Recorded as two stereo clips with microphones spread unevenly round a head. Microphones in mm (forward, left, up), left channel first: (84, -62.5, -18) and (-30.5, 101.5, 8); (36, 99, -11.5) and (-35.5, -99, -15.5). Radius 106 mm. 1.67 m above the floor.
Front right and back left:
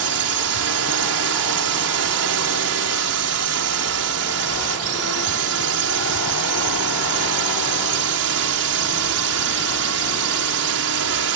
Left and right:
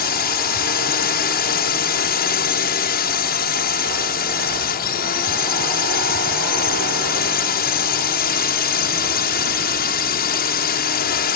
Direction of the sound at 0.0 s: 115° left.